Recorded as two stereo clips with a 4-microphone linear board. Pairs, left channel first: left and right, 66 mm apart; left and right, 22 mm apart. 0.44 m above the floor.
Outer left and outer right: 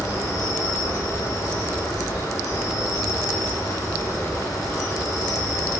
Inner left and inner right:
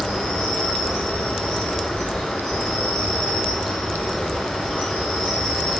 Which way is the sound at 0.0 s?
60° left (ahead or behind).